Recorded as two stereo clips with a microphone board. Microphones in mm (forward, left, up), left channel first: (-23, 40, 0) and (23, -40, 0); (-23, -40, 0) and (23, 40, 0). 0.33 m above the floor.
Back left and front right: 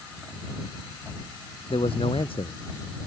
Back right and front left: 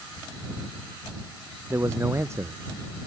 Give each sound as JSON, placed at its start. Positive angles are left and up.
{"t": 1.7, "sound": "a man speaking", "azimuth_deg": 120}